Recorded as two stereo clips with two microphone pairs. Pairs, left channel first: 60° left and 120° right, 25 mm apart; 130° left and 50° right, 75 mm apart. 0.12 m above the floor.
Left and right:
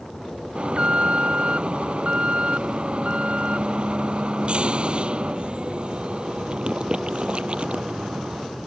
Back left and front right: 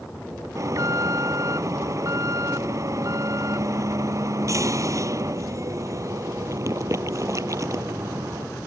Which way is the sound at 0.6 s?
85° right.